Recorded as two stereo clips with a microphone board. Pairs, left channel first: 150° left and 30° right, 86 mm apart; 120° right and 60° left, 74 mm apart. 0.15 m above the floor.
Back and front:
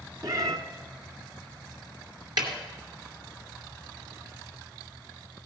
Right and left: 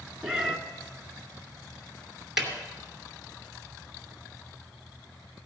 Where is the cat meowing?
15° right, 1.1 m.